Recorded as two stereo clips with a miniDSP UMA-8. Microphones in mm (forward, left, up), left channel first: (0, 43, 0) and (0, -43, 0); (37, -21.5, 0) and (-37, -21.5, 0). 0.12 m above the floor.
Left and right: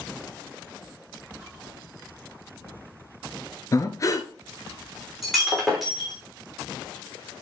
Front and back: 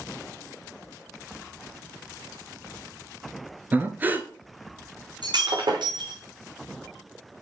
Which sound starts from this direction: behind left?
Breathing, at 3.7 s.